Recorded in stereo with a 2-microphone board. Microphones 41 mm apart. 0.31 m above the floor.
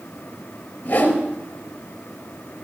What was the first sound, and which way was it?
A whoosh, 40° left (ahead or behind).